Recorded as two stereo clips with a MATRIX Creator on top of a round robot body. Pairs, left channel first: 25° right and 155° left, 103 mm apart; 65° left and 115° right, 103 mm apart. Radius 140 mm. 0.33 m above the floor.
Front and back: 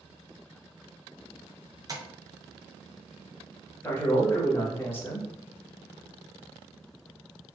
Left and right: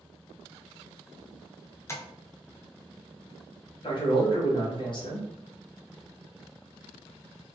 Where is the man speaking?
40° left, 1.3 m.